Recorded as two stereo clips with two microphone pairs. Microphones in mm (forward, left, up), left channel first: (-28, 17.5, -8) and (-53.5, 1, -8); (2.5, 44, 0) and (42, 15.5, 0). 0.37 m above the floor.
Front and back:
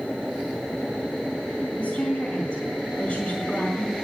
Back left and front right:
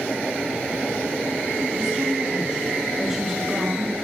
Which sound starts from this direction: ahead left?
A woman speaking, at 1.8 s.